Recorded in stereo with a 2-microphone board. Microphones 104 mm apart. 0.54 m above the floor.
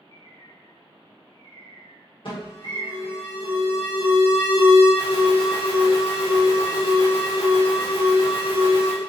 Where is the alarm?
55° left (ahead or behind), 1.2 m.